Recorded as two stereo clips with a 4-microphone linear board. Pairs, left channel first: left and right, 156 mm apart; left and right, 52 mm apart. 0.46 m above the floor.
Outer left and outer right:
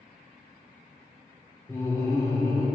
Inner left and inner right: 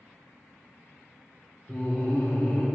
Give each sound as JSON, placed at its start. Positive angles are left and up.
{"t": 1.7, "sound": "laughter", "side_deg": 20, "distance_m": 0.9}